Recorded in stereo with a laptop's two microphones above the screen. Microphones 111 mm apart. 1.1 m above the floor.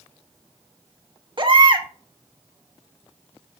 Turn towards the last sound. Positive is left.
turn(degrees=-45)  # may be behind; listen again after turning